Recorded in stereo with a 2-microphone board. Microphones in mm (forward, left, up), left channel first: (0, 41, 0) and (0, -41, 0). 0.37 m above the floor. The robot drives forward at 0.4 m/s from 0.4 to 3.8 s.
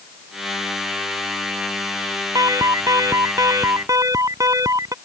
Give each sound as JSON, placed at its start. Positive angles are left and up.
{"t": 2.4, "sound": "an alarm", "side_deg": -45}